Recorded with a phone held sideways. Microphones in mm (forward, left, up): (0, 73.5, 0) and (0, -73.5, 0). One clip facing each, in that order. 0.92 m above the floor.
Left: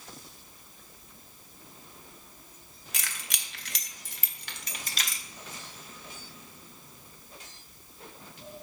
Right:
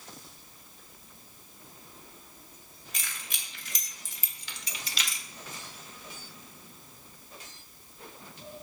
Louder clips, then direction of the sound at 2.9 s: Left 2 dB; 85° left.